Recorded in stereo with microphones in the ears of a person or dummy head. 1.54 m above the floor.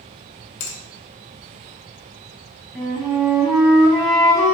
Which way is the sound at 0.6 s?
50° left (ahead or behind).